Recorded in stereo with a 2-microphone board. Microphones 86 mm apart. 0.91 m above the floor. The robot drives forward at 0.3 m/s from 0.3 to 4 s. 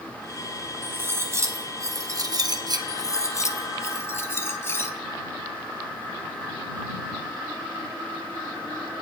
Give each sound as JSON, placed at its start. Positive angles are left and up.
{"t": 0.8, "sound": "cutlery clinking", "side_deg": -30, "distance_m": 1.1}
{"t": 2.9, "sound": "cutlery clinking", "side_deg": 45, "distance_m": 0.5}